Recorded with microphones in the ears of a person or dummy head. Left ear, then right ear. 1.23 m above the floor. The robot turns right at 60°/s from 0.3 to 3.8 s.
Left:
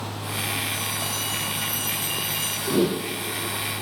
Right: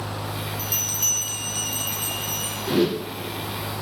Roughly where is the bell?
Right.